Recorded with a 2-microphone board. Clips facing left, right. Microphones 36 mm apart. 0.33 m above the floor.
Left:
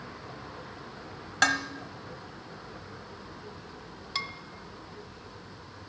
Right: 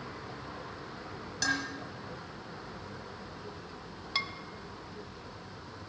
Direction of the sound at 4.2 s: 10° right (ahead or behind).